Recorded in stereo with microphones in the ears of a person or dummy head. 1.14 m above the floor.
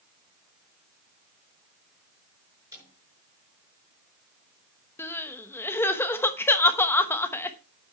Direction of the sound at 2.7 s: 15° right (ahead or behind).